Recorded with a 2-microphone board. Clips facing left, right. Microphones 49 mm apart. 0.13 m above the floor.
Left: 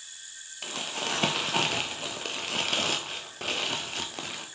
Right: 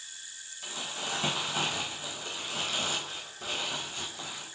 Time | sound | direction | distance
0.6 | crumpling | 65° left (ahead or behind) | 0.5 m